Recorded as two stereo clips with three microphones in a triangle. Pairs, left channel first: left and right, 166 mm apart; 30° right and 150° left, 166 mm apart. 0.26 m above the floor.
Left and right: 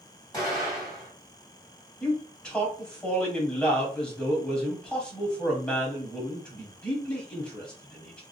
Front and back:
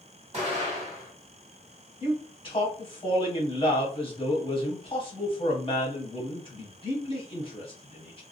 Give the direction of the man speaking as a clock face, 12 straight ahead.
12 o'clock.